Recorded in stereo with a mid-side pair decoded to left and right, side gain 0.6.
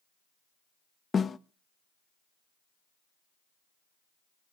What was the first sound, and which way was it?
A snare drum, 30° left.